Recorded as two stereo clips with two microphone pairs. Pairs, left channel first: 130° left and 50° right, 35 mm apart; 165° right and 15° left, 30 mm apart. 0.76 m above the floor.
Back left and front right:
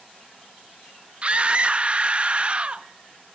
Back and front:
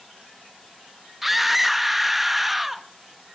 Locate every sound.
1.2 s a scream: 60° right, 0.6 m